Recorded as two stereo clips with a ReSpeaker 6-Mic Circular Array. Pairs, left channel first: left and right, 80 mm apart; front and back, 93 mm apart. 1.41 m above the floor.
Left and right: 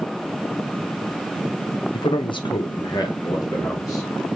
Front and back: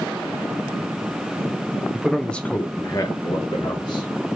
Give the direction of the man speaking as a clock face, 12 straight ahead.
9 o'clock.